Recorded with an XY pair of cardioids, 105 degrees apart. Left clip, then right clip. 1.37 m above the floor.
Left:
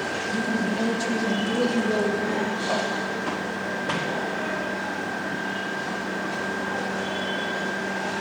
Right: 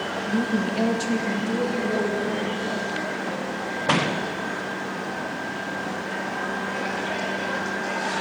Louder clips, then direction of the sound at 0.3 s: Right 2 dB; 70° right.